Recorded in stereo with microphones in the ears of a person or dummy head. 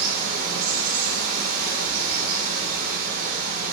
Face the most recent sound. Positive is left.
turn(degrees=-50)  # may be behind; listen again after turning